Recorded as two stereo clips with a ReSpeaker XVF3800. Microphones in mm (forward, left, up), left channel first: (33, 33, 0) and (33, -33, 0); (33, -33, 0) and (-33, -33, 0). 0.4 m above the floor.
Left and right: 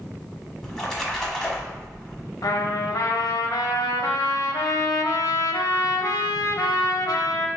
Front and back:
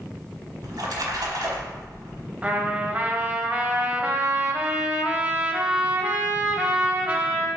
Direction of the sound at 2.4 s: 110° left.